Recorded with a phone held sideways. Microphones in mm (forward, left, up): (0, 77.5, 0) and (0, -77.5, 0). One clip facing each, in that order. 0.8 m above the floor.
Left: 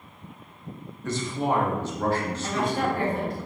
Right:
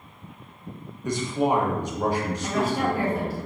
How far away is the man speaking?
About 0.8 m.